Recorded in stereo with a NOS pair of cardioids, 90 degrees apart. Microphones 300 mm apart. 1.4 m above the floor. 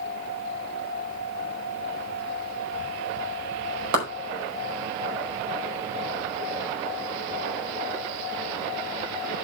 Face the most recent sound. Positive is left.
turn(degrees=-70)